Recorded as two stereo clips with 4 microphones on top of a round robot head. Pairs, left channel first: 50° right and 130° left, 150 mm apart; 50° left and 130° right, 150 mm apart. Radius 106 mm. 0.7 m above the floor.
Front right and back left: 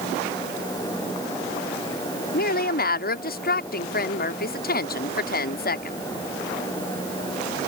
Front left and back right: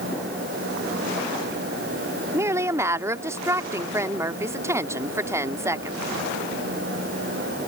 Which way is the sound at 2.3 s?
60° right.